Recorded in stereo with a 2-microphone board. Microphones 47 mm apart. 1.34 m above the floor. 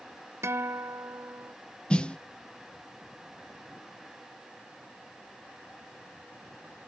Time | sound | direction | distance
0.4 | a guitar | 70° right (ahead or behind) | ?
1.9 | a snare drum | 20° left (ahead or behind) | ?